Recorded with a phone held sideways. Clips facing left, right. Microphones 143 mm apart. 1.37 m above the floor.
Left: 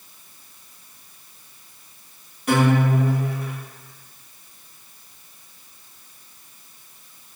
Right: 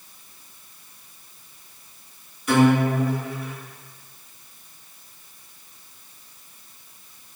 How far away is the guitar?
About 1.6 m.